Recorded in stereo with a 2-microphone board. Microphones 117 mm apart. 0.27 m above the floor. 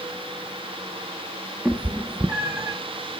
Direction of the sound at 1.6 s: 10° right (ahead or behind).